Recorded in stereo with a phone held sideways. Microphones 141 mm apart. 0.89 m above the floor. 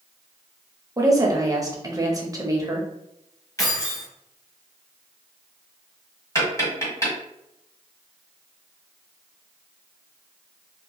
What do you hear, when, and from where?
1.0 s a woman speaking: 25° right (ahead or behind), 0.6 m
3.6 s keys jangling: 25° left (ahead or behind), 0.8 m
6.3 s tapping: 25° left (ahead or behind), 1.3 m